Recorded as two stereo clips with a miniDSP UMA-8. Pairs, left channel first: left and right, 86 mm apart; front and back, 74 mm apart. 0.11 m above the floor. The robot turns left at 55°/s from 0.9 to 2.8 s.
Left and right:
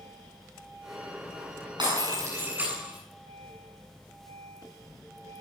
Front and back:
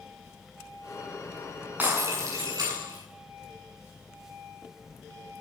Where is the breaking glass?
115° right, 9.5 m; by 3.0 s 170° right, 9.5 m.